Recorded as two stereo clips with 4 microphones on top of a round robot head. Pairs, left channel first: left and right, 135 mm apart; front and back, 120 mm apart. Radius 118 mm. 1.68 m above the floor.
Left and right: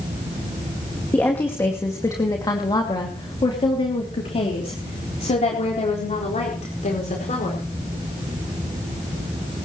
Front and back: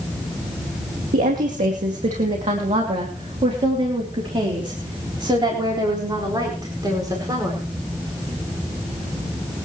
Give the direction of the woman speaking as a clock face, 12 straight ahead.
6 o'clock.